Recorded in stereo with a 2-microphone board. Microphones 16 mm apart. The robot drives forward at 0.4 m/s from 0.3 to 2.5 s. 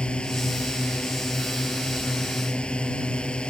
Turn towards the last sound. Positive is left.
turn(degrees=80)